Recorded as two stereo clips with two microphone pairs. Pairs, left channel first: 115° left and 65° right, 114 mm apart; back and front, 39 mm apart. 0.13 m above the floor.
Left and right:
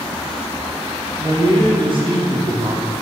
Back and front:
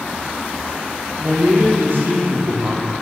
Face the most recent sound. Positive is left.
turn(degrees=-20)